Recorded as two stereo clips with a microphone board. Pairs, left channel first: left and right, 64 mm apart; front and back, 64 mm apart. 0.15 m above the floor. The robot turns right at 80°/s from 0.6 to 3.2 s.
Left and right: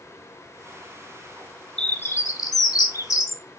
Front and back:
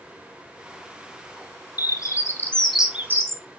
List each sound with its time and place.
1.8 s a bird: 15° left, 0.8 m; by 3.4 s 125° left, 0.8 m